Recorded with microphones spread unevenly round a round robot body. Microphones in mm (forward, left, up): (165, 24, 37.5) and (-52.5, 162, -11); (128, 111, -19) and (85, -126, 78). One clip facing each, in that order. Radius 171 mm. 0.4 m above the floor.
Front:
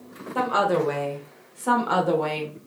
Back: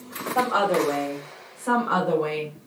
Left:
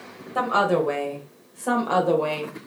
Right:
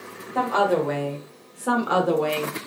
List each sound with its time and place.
0.3 s a woman speaking: 30° left, 2 m; by 2.5 s 25° right, 1.7 m